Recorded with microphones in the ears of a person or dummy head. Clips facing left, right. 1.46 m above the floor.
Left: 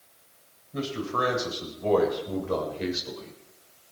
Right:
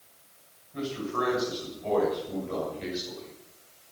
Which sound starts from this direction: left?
A man speaking, at 0.7 s.